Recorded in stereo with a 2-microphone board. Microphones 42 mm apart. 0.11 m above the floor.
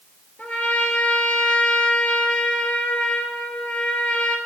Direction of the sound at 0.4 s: 40° left (ahead or behind).